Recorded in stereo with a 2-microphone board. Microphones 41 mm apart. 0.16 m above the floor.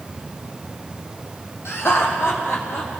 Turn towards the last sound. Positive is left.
turn(degrees=80)